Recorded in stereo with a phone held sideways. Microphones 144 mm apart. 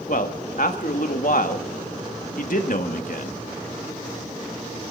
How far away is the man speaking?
About 1.4 m.